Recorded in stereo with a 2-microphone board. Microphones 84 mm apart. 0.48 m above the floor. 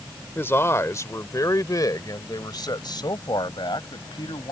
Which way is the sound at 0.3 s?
25° left (ahead or behind).